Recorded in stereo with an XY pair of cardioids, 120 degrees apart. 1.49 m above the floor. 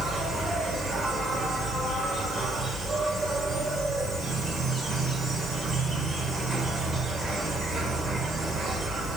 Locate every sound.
0.0 s an insect: 40° right, 1.1 m